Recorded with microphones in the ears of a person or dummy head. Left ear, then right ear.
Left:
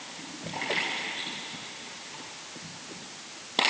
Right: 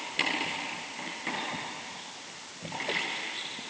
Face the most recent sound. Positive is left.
No sound to turn to.